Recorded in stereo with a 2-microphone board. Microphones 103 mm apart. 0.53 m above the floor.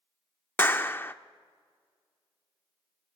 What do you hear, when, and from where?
0.6 s a clap: 20° left (ahead or behind), 0.7 m